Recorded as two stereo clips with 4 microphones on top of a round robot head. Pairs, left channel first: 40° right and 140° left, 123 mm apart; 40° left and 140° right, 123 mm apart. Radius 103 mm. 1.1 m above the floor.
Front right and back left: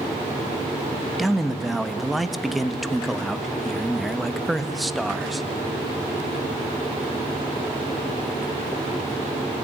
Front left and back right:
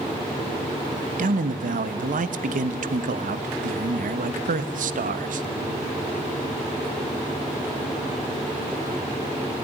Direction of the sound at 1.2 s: 130° right.